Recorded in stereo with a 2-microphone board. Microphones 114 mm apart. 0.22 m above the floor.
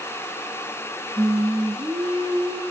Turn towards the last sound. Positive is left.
turn(degrees=-30)  # may be behind; listen again after turning